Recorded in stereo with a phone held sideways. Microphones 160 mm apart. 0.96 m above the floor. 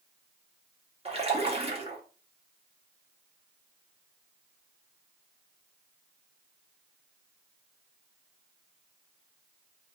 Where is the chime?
I don't hear a chime.